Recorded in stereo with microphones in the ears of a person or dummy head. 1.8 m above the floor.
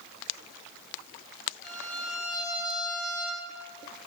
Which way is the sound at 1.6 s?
5° left (ahead or behind).